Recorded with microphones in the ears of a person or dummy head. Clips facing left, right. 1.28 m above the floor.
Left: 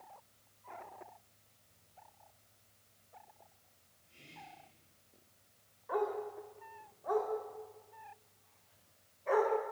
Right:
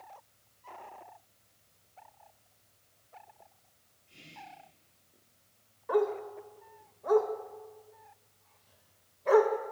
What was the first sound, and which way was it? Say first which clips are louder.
Whispering: right 4 dB; 75° right (ahead or behind).